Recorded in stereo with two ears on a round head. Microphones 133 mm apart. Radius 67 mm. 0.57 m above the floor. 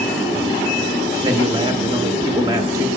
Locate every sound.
1.2 s a man speaking: 25° right (ahead or behind), 1.3 m